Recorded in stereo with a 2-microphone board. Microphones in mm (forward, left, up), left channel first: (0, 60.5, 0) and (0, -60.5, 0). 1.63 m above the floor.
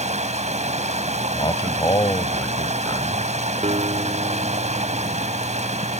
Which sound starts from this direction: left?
A man speaking, at 1.3 s.